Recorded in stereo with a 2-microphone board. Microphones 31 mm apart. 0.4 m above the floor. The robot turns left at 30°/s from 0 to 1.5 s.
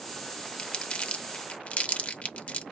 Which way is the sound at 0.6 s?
35° left (ahead or behind).